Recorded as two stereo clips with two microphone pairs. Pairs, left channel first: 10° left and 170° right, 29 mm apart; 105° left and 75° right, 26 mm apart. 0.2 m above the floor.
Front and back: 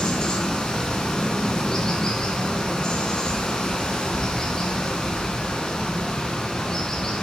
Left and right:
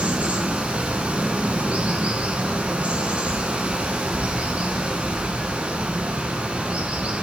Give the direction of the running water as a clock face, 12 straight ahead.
2 o'clock.